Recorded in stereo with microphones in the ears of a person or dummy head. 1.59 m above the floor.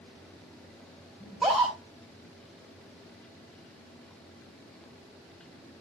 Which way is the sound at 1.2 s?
Centre (ahead or behind).